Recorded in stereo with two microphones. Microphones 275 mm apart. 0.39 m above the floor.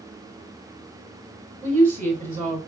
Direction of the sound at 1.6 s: 30° right (ahead or behind).